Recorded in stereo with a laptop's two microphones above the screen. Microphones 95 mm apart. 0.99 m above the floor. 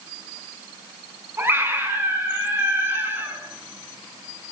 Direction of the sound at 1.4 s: 25° right (ahead or behind).